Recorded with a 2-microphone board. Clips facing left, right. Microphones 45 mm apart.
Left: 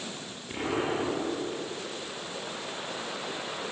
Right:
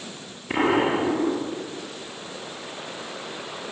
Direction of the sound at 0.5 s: 65° right (ahead or behind).